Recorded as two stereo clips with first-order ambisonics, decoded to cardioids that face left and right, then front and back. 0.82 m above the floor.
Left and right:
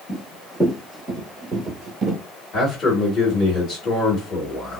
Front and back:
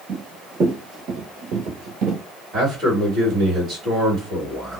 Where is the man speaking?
135° left, 1.6 m.